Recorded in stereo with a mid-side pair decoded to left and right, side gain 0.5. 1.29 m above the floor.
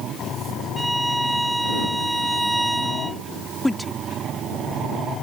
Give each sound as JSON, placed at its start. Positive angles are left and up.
{"t": 0.8, "sound": "a violin", "azimuth_deg": -10}
{"t": 3.6, "sound": "a woman speaking", "azimuth_deg": 10}